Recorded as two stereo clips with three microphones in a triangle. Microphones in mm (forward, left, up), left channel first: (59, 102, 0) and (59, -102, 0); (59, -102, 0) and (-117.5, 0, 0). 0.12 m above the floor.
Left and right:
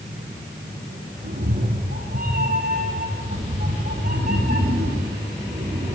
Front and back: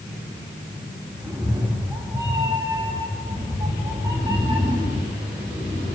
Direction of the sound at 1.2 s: 130° right.